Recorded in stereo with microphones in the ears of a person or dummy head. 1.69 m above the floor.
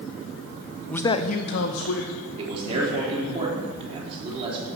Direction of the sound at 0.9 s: Centre (ahead or behind).